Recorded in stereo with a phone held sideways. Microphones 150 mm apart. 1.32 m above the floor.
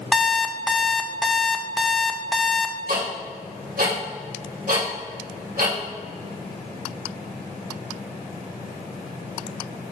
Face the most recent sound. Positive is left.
turn(degrees=-75)  # may be behind; listen again after turning